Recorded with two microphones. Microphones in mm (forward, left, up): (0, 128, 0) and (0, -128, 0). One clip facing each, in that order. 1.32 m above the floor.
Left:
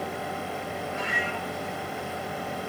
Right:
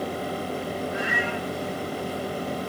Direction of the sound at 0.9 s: 10° right (ahead or behind).